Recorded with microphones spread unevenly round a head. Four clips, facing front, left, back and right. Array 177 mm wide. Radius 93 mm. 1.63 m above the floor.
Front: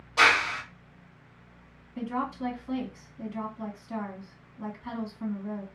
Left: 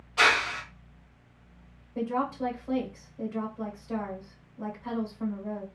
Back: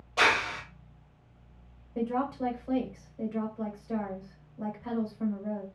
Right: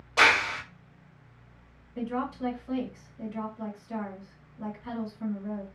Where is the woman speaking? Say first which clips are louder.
Left 3 dB, back 2 dB; 160° left, 1.5 m.